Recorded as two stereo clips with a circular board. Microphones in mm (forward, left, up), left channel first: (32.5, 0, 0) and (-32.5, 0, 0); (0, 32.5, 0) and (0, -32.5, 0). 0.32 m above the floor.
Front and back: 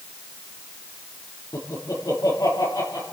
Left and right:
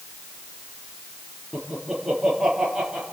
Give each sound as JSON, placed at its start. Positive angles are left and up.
{"t": 1.5, "sound": "laughter", "azimuth_deg": -5, "distance_m": 6.0}